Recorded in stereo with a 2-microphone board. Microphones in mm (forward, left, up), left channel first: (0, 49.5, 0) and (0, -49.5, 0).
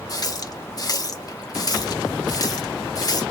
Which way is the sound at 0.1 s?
40° left (ahead or behind).